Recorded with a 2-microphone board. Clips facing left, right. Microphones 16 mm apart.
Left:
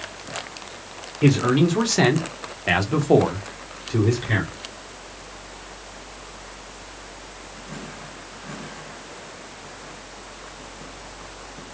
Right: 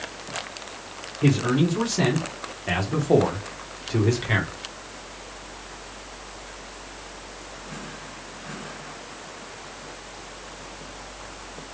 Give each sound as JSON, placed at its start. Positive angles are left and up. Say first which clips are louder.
{"t": 1.2, "sound": "a man speaking", "louder": "left 3 dB", "side_deg": 80, "distance_m": 0.9}